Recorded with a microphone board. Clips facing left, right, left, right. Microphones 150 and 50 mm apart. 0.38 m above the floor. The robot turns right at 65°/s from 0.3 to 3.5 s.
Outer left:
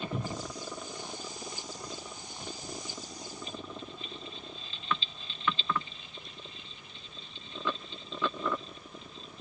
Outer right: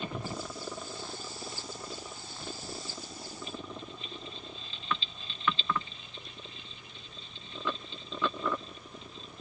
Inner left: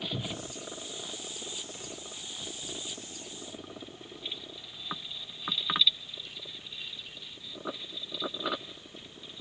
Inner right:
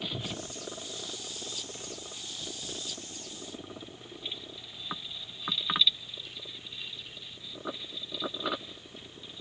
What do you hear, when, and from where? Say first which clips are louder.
0.1 s a cupboard door: outer left 1 dB, inner left 1 dB; 30° left (ahead or behind), 0.9 m; by 0.5 s 25° left (ahead or behind), 0.9 m